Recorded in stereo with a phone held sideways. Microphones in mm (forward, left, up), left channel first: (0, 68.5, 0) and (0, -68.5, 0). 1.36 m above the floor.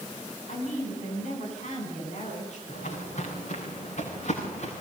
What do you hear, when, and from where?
0.5 s a woman speaking: 60° left (ahead or behind), 9.5 m
2.7 s footsteps: 65° left (ahead or behind), 9.5 m; by 4.7 s 60° left (ahead or behind), 9.5 m